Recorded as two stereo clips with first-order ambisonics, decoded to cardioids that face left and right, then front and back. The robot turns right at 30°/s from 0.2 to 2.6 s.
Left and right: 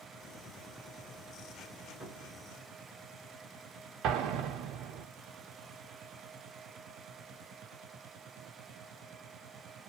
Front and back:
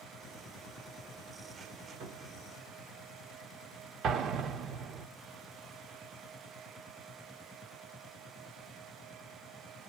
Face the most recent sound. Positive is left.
turn(degrees=-130)